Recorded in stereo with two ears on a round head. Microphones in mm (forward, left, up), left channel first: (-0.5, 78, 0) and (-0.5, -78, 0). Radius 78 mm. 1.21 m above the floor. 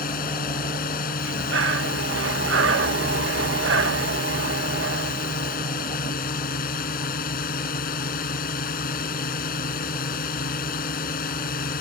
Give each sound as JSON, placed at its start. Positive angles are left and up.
{"t": 0.0, "sound": "a drone", "side_deg": 55}
{"t": 1.2, "sound": "breathing", "side_deg": -75}